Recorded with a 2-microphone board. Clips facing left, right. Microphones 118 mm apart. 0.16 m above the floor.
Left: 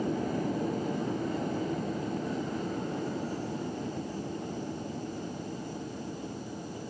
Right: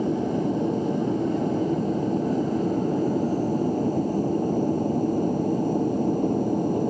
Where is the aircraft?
25° right (ahead or behind); by 6.9 s 55° right (ahead or behind).